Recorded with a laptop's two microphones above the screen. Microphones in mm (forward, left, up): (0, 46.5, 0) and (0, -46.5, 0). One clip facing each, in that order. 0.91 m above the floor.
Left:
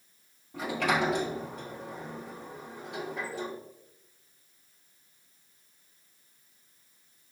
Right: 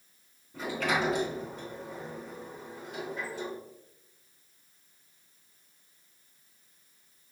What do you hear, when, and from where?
0.5 s a sliding door: 80° left, 3 m